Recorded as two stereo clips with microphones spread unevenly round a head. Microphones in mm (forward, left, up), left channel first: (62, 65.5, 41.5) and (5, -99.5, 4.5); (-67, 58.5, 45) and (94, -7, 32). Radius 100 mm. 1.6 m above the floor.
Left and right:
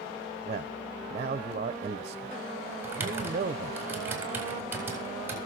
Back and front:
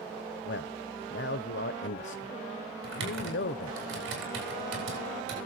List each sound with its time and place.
0.4 s a man speaking: 170° right, 0.9 m
2.8 s typing on a keyboard: 30° right, 8 m